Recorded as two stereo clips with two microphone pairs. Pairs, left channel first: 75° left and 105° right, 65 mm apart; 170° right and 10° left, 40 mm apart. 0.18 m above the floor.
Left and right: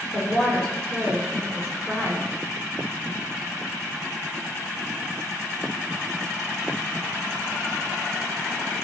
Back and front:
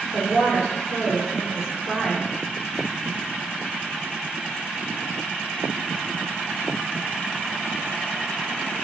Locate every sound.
0.1 s a woman speaking: 60° right, 6 m